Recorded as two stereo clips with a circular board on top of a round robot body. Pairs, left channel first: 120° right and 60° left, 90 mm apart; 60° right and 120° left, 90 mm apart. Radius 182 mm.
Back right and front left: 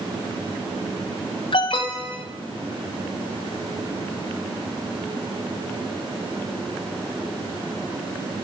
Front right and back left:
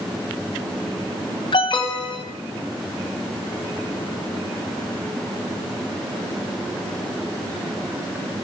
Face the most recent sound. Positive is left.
turn(degrees=-95)